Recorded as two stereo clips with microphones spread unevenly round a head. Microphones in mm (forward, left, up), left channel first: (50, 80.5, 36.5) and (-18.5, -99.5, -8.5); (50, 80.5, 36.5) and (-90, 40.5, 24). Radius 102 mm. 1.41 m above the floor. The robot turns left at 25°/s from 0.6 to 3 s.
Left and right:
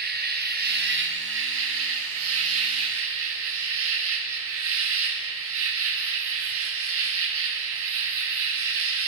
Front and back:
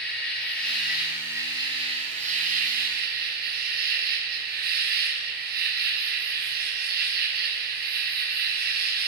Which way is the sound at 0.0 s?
70° right.